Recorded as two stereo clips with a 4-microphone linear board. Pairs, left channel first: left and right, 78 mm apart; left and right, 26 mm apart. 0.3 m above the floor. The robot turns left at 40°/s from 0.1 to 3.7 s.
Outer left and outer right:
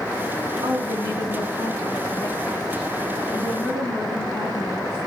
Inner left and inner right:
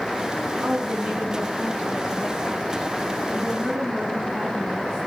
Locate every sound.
0.6 s a woman speaking: 80° right, 1.6 m; by 5.1 s 155° left, 1.6 m